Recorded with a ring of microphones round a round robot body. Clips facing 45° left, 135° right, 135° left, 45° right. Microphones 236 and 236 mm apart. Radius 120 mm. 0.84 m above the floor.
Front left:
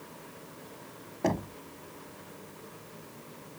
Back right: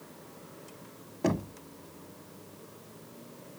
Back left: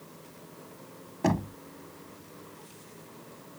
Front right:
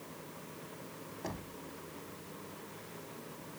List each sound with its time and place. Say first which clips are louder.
1.2 s knocking: back right 1 dB, back left 17 dB; 145° left